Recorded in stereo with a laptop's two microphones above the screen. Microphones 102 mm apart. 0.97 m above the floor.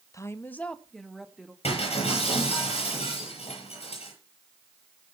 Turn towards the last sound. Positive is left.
turn(degrees=75)  # may be behind; listen again after turning